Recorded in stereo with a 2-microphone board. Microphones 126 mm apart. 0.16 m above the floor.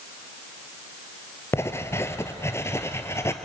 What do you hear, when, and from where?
1.5 s writing: 20° left (ahead or behind), 1.2 m